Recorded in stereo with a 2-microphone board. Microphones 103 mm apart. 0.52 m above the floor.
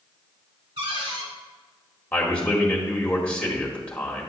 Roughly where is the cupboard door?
Right.